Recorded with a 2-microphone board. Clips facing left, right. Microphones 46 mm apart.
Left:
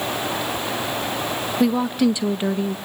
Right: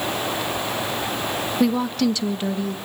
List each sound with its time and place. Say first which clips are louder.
1.6 s a woman speaking: left 2 dB; 5° left (ahead or behind), 0.7 m; by 2.8 s 25° left (ahead or behind), 1.1 m